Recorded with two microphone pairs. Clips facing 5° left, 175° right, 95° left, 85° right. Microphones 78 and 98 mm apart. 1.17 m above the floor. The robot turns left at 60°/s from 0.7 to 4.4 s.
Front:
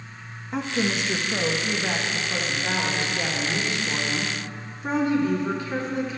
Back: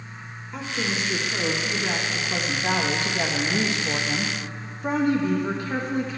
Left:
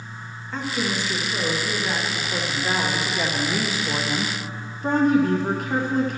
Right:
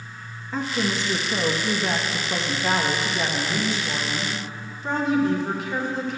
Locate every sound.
0.5 s a woman speaking: straight ahead, 1.5 m; by 6.2 s 140° left, 1.5 m